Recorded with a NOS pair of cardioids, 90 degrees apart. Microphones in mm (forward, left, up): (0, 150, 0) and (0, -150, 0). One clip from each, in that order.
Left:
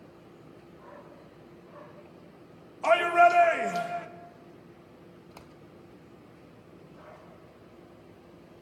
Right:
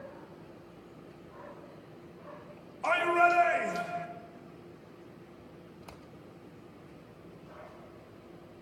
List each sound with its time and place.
2.8 s a shout: 25° left, 2.5 m